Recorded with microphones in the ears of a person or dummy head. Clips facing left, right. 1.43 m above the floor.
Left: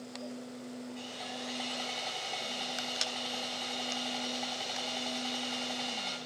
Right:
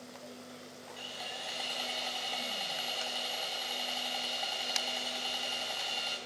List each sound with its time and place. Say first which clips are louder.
1.0 s sawing: left 4 dB; 10° right (ahead or behind), 3 m